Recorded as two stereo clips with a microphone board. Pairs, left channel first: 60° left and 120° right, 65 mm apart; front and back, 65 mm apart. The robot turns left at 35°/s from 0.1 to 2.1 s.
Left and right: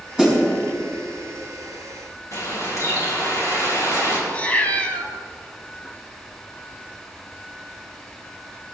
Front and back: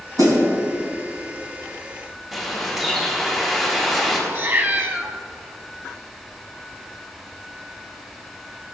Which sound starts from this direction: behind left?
A cat meowing, at 4.3 s.